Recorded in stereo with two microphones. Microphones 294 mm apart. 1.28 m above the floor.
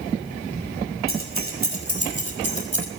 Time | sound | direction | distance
1.1 | keys jangling | 50° right (ahead or behind) | 6.5 m